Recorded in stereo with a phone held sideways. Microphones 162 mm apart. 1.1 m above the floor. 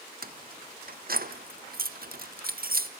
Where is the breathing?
I don't hear breathing.